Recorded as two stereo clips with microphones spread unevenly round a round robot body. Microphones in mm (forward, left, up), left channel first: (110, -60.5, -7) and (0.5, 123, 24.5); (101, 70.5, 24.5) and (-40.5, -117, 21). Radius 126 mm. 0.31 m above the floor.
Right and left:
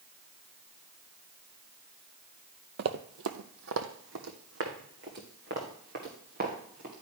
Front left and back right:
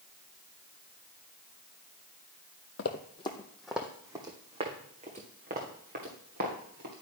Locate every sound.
2.8 s running footsteps: 100° left, 0.6 m; by 6.9 s straight behind, 2.5 m